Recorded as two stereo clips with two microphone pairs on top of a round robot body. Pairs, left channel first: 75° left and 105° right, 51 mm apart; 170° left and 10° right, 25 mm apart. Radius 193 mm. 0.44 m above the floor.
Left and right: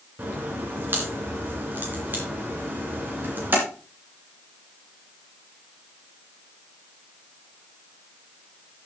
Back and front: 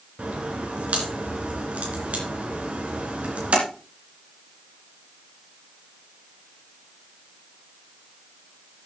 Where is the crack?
50° right, 2.5 m.